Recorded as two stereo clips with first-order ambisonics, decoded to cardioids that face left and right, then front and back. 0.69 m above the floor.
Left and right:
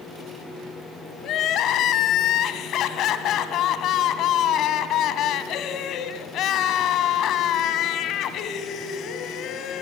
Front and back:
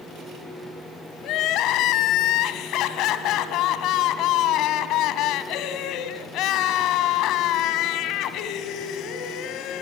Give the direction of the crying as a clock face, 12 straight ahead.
11 o'clock.